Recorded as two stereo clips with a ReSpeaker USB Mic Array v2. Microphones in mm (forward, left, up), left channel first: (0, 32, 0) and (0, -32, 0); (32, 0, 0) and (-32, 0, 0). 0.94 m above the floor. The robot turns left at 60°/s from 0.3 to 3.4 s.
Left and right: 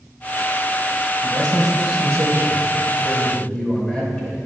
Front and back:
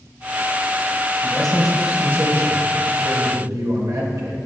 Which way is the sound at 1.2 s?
70° right.